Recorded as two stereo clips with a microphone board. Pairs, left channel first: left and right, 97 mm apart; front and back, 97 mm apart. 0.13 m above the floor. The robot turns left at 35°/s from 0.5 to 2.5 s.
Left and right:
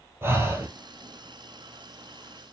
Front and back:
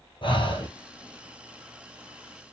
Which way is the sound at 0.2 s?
25° right.